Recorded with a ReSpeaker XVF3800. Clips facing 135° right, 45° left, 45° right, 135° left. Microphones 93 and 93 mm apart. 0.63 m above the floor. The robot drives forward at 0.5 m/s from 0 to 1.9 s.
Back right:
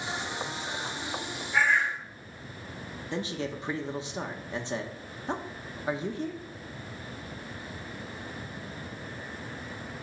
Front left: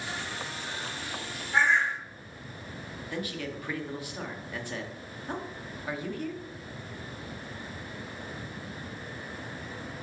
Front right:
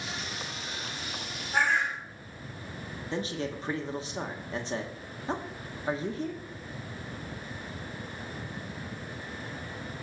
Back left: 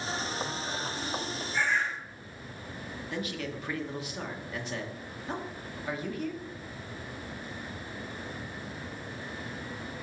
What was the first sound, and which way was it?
A bird, 20° right.